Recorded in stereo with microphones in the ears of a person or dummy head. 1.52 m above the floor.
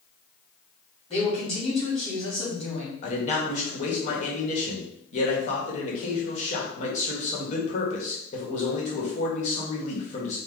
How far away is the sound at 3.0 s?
About 1.3 m.